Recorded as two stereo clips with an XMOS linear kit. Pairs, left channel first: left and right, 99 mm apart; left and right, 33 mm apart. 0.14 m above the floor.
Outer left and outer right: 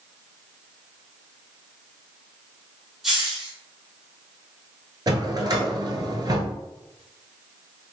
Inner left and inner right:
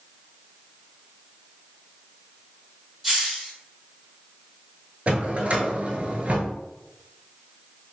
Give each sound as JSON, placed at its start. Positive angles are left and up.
{"t": 3.0, "sound": "a hiss", "side_deg": 0, "distance_m": 1.0}
{"t": 5.1, "sound": "a drawer", "side_deg": -45, "distance_m": 0.6}